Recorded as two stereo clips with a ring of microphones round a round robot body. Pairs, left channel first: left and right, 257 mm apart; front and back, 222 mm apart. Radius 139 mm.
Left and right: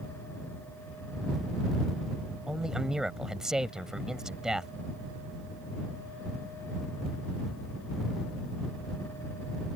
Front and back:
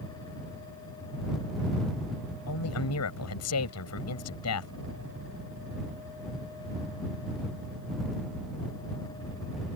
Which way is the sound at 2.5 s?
Straight ahead.